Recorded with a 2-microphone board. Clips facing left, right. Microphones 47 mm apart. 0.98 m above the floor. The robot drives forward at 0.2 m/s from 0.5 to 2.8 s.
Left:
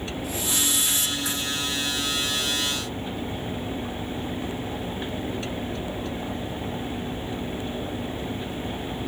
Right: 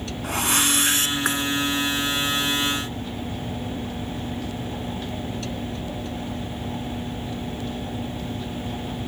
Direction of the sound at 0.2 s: 60° right (ahead or behind).